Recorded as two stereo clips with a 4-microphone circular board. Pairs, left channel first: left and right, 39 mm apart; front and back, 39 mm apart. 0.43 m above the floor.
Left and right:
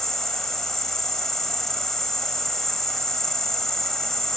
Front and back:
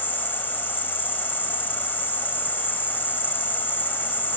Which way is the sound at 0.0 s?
10° left.